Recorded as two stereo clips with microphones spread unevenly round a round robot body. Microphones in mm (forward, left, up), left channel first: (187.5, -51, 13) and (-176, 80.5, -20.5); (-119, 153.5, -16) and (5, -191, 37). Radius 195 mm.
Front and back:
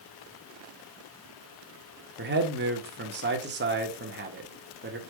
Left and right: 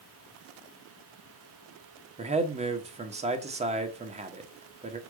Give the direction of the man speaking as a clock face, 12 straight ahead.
5 o'clock.